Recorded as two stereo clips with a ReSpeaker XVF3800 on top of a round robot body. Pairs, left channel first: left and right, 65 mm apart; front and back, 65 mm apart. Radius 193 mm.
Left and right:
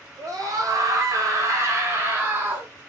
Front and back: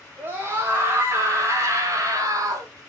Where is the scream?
120° right, 3 m; by 2.7 s 150° right, 3 m.